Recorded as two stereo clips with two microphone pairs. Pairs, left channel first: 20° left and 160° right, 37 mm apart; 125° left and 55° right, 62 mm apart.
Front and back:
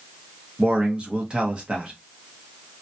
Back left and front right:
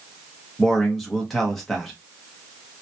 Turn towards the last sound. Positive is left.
turn(degrees=-155)